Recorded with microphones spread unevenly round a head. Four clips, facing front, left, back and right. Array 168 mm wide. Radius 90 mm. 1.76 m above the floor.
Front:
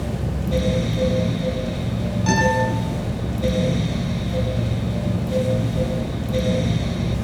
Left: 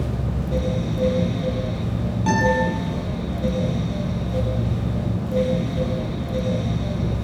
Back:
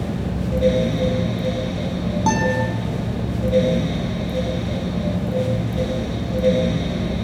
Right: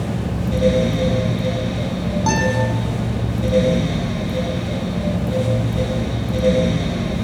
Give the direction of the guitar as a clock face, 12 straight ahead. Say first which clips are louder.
Left 1 dB, front 1 dB; 5 o'clock.